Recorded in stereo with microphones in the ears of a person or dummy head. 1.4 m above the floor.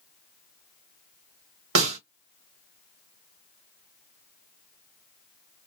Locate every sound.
1.8 s a snare drum: 80° right, 2.5 m